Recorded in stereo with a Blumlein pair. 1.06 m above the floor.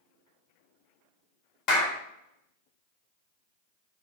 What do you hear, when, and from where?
1.7 s a clap: 35° left, 0.8 m